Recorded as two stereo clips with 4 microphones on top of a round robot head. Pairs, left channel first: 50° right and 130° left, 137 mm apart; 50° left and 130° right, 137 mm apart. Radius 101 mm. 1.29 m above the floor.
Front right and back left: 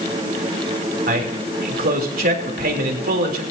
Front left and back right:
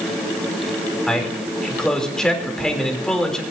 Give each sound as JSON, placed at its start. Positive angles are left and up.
{"t": 1.1, "sound": "a man speaking", "azimuth_deg": 135, "distance_m": 3.5}